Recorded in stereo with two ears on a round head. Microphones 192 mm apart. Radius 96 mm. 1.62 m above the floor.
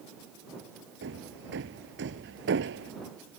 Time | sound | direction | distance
1.0 | hammering | 60° right (ahead or behind) | ?